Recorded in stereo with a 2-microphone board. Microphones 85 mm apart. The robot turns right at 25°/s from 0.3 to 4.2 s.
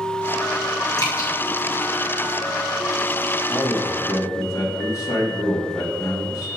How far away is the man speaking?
About 1.8 m.